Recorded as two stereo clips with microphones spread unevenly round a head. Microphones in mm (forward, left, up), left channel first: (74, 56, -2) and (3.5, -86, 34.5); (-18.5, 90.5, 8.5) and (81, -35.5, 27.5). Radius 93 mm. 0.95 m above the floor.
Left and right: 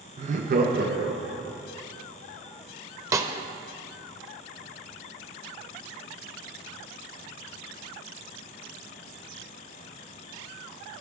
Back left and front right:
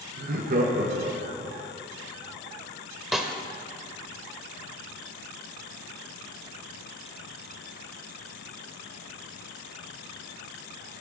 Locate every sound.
0.2 s laughter: 65° right, 1.1 m; by 1.6 s 110° right, 2.5 m
3.1 s a snare drum: 125° right, 0.7 m